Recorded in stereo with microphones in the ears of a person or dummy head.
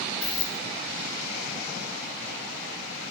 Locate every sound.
0.2 s keys jangling: 50° left (ahead or behind), 1.2 m